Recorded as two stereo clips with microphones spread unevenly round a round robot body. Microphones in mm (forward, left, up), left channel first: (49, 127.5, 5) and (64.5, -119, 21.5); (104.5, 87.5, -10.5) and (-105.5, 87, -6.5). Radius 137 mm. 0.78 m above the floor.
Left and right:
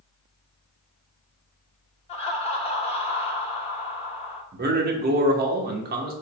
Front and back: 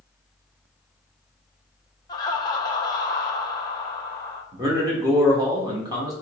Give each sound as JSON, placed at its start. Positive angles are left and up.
{"t": 2.1, "sound": "laughter", "azimuth_deg": 55, "distance_m": 0.6}
{"t": 4.5, "sound": "a man speaking", "azimuth_deg": -115, "distance_m": 0.7}